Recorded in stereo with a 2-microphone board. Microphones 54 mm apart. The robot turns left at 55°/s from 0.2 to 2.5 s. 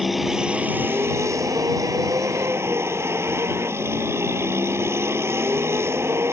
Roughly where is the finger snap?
No finger snap in this recording.